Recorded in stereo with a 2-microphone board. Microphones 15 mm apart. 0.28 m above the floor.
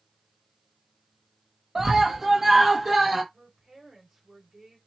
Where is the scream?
35° right (ahead or behind), 1.1 m; by 3.2 s 15° right (ahead or behind), 1.8 m.